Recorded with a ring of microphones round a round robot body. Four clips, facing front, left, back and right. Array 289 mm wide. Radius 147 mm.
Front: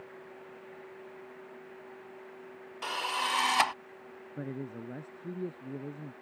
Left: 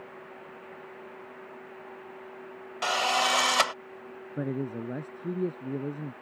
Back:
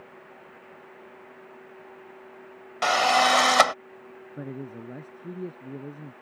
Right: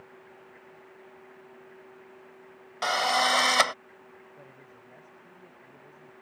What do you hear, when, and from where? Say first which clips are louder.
2.8 s a drill: right 1 dB, back 13 dB; 175° right
4.4 s a man speaking: left 19 dB, back 2 dB; 90° left